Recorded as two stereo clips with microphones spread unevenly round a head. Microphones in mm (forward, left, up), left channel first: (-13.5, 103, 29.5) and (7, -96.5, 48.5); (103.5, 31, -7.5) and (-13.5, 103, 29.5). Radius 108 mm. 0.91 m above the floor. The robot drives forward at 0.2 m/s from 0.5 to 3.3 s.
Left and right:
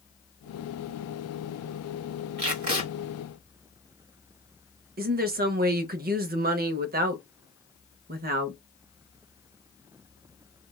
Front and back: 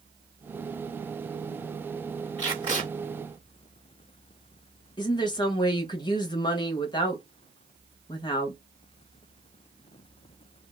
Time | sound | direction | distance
2.4 | tape being pulled | 140° right | 1.5 m
5.0 | a woman speaking | 55° right | 0.6 m